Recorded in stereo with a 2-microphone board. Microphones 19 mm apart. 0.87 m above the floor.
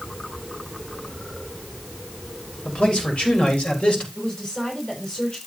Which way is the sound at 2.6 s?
80° left.